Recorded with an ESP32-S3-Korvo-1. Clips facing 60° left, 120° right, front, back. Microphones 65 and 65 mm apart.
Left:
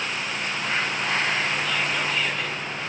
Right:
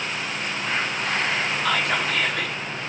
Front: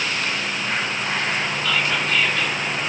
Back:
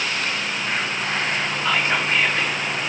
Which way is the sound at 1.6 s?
120° right.